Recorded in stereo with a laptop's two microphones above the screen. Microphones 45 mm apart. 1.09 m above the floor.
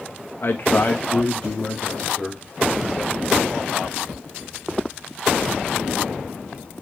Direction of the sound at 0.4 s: 60° left (ahead or behind).